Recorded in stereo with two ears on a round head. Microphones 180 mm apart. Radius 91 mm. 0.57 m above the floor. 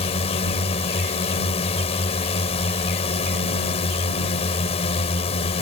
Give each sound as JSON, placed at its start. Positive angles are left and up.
{"t": 0.0, "sound": "a drone", "side_deg": 30}